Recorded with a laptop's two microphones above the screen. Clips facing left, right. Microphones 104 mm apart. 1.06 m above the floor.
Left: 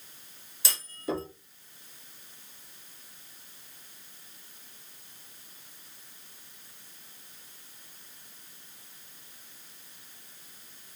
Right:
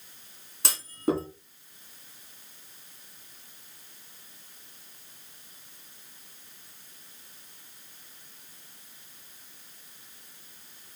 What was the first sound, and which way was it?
A clunk, 65° right (ahead or behind).